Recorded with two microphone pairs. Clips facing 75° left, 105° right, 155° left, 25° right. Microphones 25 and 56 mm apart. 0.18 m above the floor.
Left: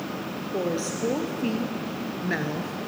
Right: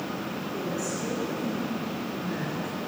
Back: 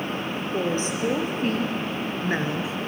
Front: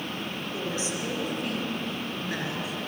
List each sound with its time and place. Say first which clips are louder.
0.5 s a woman speaking: left 5 dB, back 7 dB; 110° left, 4.5 m; by 2.9 s 105° left, 2 m